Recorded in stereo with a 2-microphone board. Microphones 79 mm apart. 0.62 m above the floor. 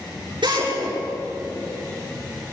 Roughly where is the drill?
Right.